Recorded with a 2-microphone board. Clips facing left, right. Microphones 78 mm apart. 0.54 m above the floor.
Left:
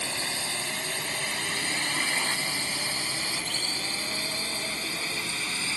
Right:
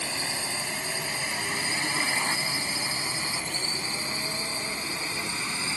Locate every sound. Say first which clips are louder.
0.0 s a drone: right 1 dB; 5° right (ahead or behind); by 5.8 s 20° right (ahead or behind)